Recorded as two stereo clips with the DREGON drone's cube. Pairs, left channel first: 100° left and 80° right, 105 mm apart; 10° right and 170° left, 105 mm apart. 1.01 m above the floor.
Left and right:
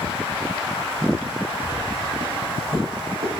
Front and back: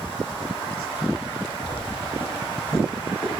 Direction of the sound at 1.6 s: 55° right.